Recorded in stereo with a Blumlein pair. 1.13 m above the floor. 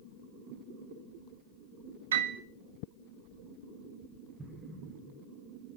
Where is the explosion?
10° right, 1.1 m.